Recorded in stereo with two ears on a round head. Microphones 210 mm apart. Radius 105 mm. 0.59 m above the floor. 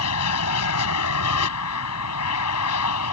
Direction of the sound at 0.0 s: 70° left (ahead or behind).